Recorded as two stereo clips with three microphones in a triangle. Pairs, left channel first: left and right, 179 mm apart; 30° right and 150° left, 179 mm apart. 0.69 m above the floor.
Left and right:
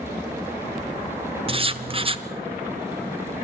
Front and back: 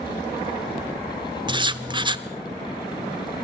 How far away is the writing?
About 1.1 m.